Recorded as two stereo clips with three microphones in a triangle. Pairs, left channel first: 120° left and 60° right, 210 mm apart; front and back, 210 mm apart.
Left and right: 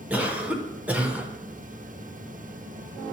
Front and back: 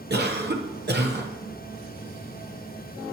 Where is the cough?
145° right, 1.0 m.